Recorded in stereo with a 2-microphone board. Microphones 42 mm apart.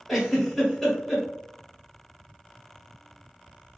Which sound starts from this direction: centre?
A giggle, at 0.1 s.